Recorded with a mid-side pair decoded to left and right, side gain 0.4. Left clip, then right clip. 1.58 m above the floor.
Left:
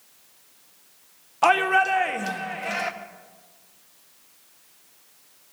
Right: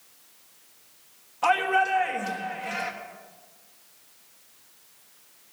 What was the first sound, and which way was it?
A shout, 65° left.